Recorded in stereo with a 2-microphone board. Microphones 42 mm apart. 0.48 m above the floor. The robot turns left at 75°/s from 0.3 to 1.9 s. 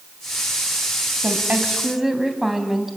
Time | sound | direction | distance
1.2 | a woman speaking | 120° right | 3 m